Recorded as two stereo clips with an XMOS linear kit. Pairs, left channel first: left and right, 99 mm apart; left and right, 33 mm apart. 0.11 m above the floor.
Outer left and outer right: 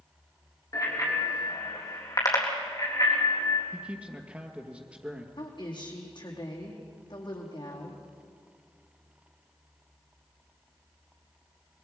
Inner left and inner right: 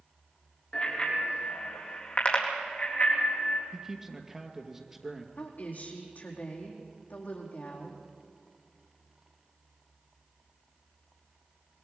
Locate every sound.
0.7 s a bicycle bell: 35° left (ahead or behind), 3 m; by 3.6 s 45° left (ahead or behind), 5 m
3.7 s a man speaking: 15° right (ahead or behind), 2.5 m
5.4 s a woman speaking: 50° left (ahead or behind), 4.5 m